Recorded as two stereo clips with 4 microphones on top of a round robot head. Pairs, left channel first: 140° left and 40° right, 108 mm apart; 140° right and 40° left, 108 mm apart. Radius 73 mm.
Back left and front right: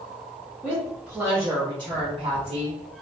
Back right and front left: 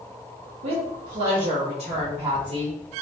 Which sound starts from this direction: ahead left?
A woman speaking, at 0.6 s.